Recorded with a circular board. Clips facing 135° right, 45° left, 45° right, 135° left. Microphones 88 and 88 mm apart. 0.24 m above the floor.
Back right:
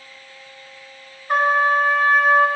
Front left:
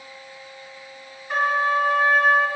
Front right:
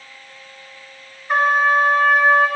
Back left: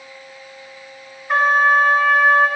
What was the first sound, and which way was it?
A trumpet, 135° right.